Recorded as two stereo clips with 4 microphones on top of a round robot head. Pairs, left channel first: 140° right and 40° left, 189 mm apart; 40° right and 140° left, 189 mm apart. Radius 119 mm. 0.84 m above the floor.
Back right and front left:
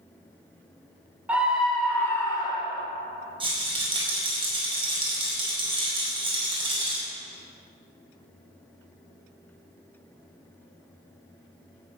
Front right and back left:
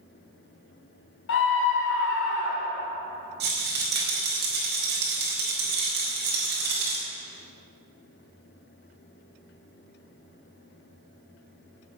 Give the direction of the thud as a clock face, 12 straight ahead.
No thud in this recording.